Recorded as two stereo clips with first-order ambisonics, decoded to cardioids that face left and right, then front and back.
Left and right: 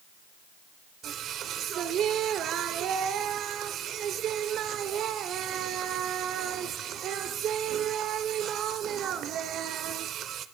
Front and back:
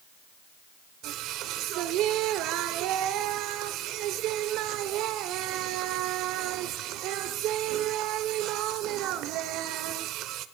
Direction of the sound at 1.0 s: 140° right.